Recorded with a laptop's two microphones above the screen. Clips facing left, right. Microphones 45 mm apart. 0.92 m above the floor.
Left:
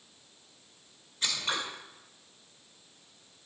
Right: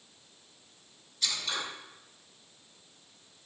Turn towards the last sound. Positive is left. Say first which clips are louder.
# left 2 dB
turn(degrees=35)  # may be behind; listen again after turning